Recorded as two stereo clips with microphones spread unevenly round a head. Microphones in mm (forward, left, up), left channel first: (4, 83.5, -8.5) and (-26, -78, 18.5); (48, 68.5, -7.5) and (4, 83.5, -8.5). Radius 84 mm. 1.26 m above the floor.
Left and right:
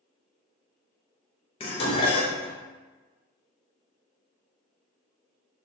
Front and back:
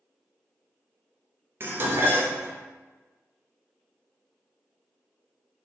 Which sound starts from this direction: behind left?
Dishes clattering, at 1.6 s.